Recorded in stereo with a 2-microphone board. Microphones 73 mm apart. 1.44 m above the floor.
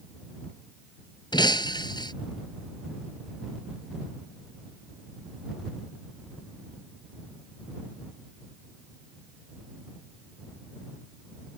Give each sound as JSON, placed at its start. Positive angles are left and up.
{"t": 1.3, "sound": "breaking glass", "side_deg": 85}